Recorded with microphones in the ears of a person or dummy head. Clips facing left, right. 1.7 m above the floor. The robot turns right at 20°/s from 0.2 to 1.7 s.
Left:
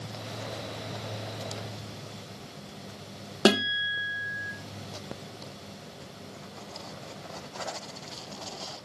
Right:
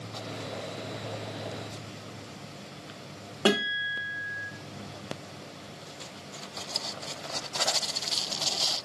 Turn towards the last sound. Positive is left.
turn(degrees=20)  # may be behind; listen again after turning